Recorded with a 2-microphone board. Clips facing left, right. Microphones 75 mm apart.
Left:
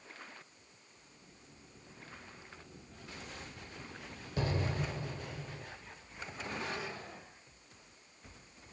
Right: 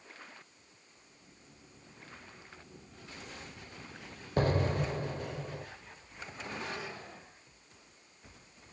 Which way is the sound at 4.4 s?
45° right (ahead or behind).